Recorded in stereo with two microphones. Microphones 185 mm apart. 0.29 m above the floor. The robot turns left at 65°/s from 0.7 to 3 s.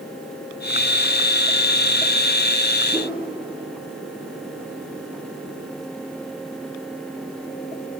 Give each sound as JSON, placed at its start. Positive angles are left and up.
{"t": 2.9, "sound": "a whoosh", "side_deg": -20, "distance_m": 7.0}